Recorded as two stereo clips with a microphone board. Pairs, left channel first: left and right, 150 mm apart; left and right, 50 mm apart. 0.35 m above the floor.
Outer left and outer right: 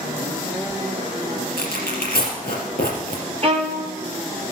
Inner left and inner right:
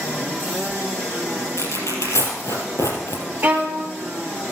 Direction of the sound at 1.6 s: 85° left.